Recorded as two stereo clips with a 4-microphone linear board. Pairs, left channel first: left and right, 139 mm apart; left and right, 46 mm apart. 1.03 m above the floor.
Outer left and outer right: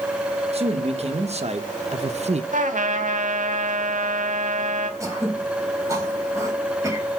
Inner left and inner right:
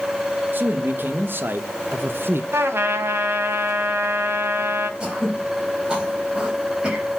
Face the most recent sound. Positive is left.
turn(degrees=-20)  # may be behind; listen again after turning